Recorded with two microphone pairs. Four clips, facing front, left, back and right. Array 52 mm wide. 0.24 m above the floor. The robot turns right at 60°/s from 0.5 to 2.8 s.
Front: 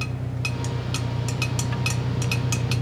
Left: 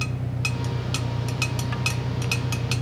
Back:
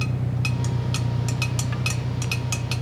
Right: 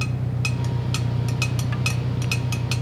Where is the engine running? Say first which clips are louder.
Right 2 dB, back 3 dB; 155° right; by 2.8 s 15° right.